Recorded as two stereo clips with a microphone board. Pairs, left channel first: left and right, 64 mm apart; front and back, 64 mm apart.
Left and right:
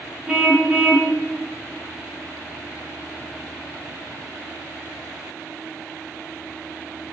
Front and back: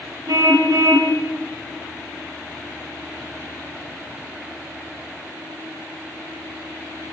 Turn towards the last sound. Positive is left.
turn(degrees=-160)